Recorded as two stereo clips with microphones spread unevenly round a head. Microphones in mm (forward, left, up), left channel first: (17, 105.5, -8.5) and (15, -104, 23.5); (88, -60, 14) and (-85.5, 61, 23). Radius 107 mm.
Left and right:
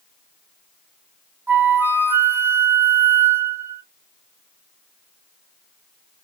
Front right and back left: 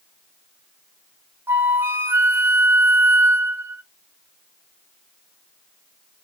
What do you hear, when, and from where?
1.5 s a flute: 145° right, 0.8 m